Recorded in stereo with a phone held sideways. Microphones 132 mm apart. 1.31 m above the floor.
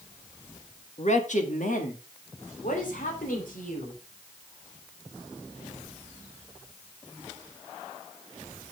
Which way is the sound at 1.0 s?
55° left (ahead or behind).